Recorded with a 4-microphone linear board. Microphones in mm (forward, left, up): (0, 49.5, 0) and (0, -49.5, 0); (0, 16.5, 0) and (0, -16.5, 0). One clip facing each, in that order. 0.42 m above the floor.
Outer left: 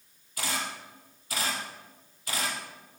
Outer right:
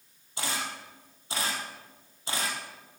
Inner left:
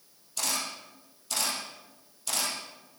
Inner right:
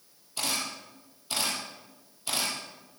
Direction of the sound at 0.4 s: 25° right (ahead or behind).